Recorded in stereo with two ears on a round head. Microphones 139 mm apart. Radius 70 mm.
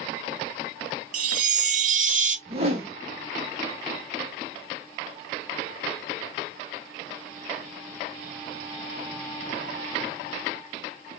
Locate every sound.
1.1 s a chime: 55° right (ahead or behind), 0.7 m
2.5 s a whoosh: 40° right (ahead or behind), 1.1 m